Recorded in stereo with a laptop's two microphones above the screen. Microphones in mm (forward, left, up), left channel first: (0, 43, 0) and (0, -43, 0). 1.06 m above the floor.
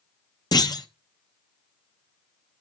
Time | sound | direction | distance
0.5 | a clunk | 50° left (ahead or behind) | 0.8 m